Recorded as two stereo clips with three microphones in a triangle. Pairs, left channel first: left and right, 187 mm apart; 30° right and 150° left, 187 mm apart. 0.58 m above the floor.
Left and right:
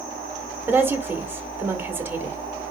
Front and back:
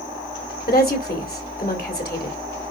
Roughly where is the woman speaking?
Ahead.